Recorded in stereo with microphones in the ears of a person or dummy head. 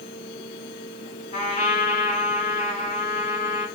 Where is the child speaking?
No child speaking in this recording.